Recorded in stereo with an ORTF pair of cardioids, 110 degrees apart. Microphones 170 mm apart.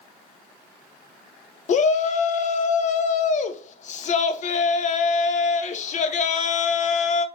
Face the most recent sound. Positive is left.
turn(degrees=45)